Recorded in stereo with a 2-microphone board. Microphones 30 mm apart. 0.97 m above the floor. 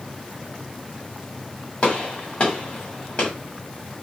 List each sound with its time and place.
1.8 s a gunshot: 40° left (ahead or behind), 1.5 m